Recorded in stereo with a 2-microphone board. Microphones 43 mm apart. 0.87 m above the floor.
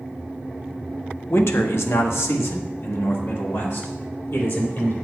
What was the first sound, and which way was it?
A man speaking, 65° left (ahead or behind).